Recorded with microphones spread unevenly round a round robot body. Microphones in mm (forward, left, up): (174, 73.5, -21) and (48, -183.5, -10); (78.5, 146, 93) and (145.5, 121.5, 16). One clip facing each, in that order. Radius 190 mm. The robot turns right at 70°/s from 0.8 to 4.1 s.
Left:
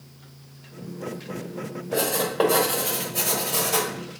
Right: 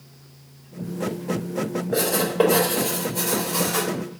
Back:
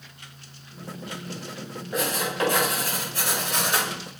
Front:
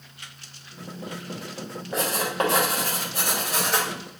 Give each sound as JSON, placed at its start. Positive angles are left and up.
{"t": 1.9, "sound": "writing", "azimuth_deg": -65, "distance_m": 3.5}